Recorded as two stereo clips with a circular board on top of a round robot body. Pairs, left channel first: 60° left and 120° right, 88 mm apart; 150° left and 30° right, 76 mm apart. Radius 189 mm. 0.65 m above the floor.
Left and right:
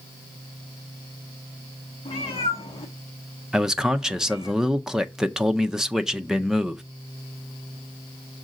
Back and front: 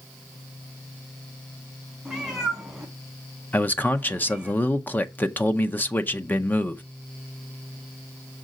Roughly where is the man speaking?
Behind.